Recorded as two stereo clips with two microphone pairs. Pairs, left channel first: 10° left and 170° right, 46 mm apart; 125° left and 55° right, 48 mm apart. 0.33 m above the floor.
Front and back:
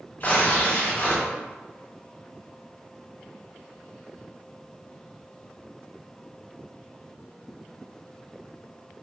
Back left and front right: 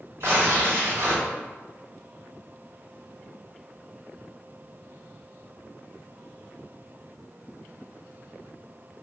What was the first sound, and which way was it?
Tearing paper, 35° right.